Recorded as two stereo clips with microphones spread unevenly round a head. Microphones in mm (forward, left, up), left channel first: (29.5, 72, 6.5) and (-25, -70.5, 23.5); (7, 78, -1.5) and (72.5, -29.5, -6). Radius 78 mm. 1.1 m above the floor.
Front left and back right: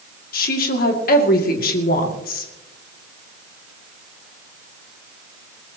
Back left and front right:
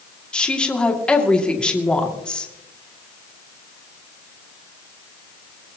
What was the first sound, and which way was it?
A woman speaking, 40° left.